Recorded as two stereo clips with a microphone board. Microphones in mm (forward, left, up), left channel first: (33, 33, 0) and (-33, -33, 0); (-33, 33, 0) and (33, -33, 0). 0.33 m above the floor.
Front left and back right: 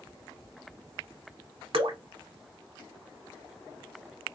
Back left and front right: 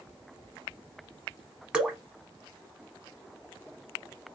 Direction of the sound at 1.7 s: 125° right.